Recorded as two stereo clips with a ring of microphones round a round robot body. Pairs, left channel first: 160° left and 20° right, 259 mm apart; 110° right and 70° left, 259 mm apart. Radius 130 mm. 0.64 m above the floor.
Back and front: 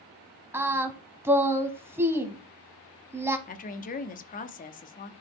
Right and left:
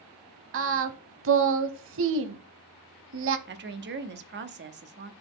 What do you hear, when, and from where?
0.5 s singing: 55° left, 0.6 m
3.5 s a woman speaking: 105° left, 0.8 m